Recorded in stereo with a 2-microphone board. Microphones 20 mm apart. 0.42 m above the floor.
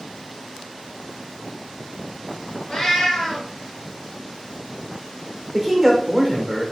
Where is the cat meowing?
45° left (ahead or behind), 2 m.